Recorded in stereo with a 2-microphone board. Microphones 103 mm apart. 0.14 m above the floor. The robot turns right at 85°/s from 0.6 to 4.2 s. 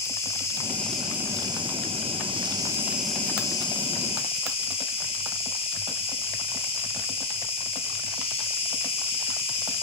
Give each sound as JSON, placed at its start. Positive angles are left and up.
{"t": 0.0, "sound": "an insect", "azimuth_deg": 150, "distance_m": 1.9}